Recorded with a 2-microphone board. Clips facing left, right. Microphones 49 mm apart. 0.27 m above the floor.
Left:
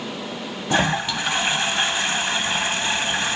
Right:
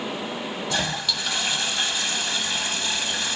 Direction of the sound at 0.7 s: 35° left (ahead or behind).